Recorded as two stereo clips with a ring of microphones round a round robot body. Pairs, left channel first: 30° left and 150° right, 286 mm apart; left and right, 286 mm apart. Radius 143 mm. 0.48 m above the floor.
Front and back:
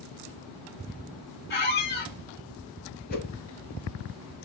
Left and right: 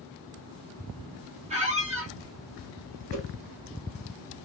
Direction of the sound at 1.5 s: 25° right.